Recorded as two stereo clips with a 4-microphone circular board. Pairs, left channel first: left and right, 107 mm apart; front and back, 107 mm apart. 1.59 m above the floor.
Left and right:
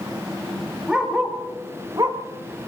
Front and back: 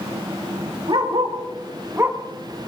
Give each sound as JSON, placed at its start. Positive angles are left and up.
{"t": 0.9, "sound": "a dog barking", "azimuth_deg": -175, "distance_m": 2.5}